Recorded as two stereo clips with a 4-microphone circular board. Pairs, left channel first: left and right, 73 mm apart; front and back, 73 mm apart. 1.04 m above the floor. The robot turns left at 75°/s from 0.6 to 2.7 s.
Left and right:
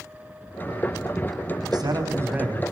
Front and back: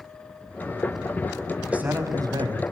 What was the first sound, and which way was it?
A man speaking, 105° right.